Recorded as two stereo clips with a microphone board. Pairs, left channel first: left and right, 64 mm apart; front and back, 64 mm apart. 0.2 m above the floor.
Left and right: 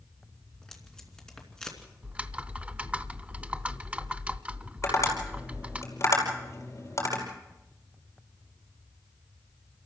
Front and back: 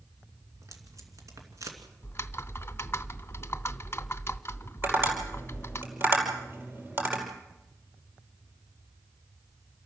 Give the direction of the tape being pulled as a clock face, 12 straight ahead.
6 o'clock.